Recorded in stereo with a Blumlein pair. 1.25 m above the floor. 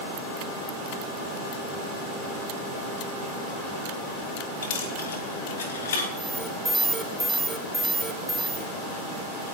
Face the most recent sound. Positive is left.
turn(degrees=-5)